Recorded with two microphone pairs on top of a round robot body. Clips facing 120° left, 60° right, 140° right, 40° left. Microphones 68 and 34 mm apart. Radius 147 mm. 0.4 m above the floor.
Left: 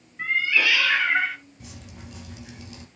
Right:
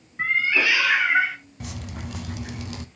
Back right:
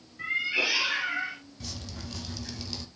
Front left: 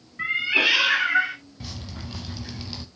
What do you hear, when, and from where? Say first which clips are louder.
0.2 s a cat meowing: right 1 dB, front left 6 dB; 10° right, 1.6 m; by 1.4 s 25° left, 1.7 m
1.6 s dripping: right 8 dB, front left 3 dB; 30° right, 0.9 m